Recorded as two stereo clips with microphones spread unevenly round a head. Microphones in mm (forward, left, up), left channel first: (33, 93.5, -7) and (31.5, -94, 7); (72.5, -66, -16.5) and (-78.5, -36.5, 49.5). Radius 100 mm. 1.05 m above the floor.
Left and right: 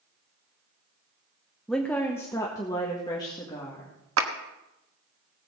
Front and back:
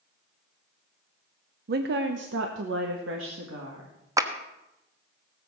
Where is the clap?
120° right, 1.1 m.